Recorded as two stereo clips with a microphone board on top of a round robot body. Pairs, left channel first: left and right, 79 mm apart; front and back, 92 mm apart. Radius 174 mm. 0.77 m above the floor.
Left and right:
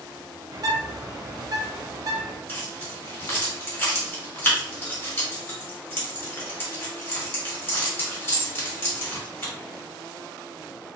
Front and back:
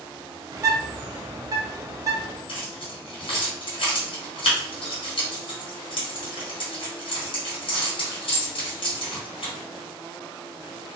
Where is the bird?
130° right, 0.7 m.